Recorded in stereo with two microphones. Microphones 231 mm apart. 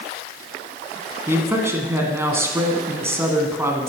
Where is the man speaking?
10° right (ahead or behind), 1.1 m.